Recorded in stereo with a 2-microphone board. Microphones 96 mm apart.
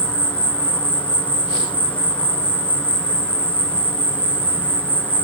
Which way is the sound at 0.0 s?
15° left (ahead or behind).